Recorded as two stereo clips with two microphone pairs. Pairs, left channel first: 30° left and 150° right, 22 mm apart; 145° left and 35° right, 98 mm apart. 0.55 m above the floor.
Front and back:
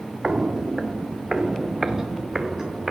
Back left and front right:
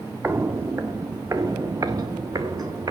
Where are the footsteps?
100° right, 0.8 m; by 2.9 s 85° right, 2 m.